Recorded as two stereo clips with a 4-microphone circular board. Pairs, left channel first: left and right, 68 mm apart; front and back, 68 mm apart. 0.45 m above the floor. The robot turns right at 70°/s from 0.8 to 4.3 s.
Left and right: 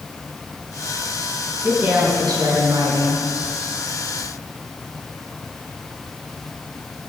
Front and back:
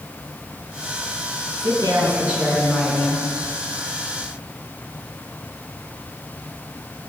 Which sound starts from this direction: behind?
A woman speaking, at 1.6 s.